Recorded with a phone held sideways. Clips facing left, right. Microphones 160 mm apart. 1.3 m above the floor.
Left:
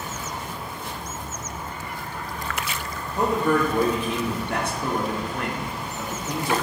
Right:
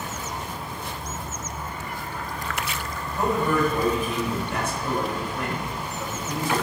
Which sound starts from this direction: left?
A man speaking, at 3.2 s.